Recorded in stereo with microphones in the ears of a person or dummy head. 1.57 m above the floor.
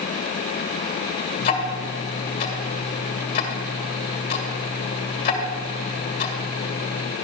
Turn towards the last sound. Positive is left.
turn(degrees=45)  # may be behind; listen again after turning